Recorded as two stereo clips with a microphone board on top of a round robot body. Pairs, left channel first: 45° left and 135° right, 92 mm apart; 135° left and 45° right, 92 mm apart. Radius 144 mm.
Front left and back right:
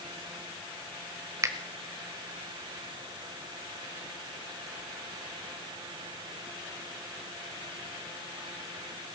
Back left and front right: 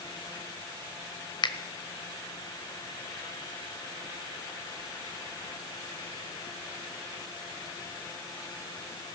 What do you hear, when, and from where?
1.4 s a finger snap: 170° left, 1.4 m